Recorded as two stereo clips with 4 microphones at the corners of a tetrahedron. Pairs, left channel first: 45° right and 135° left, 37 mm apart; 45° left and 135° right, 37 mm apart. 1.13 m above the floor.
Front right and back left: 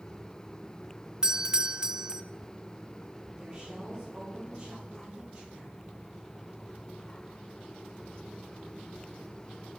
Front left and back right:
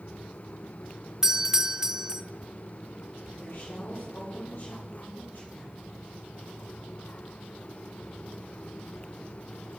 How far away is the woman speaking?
About 3.5 m.